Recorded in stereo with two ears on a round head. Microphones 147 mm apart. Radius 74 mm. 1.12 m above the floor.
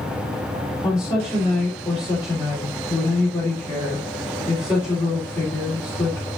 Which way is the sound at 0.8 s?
20° left (ahead or behind).